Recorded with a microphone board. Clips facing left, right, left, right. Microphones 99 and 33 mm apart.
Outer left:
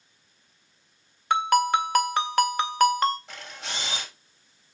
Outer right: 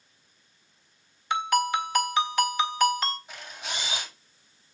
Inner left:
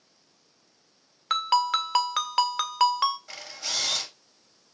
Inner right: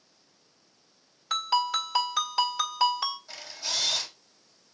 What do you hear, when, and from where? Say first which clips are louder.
1.3 s a ringtone: outer left 4 dB, inner left 3 dB; 55° left (ahead or behind), 2 m
3.3 s a camera shutter: even, inner left 1 dB; 80° left, 7 m